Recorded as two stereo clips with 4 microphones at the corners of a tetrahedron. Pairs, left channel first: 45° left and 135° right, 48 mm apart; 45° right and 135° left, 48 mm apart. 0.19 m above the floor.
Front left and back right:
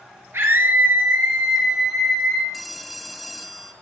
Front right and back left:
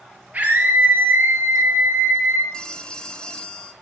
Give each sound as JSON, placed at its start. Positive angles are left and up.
{"t": 0.3, "sound": "a scream", "azimuth_deg": -170, "distance_m": 3.5}
{"t": 2.5, "sound": "a phone ringing", "azimuth_deg": -45, "distance_m": 0.9}